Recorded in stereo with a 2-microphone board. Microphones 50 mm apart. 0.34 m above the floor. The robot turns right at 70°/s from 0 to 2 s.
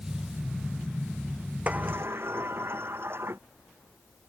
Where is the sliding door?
25° right (ahead or behind); by 3.4 s 50° right (ahead or behind).